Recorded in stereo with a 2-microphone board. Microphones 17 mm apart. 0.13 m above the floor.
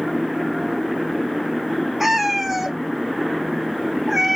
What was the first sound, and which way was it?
A cat meowing, 10° right (ahead or behind).